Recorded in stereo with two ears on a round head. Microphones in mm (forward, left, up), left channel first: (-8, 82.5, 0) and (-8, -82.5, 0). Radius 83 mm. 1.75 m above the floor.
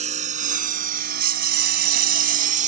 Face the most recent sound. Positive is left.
turn(degrees=-40)  # may be behind; listen again after turning